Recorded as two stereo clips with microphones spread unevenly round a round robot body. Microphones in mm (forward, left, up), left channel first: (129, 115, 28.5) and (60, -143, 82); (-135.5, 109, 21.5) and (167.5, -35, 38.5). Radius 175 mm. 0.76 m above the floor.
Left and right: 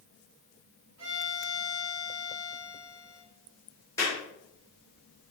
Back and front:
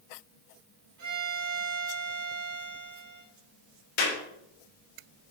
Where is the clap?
155° left, 3 m.